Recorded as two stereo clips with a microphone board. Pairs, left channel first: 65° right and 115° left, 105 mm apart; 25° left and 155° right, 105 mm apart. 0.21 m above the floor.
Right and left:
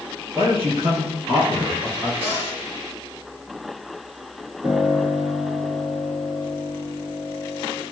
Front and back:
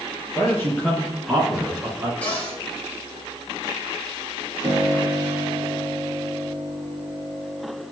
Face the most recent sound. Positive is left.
turn(degrees=70)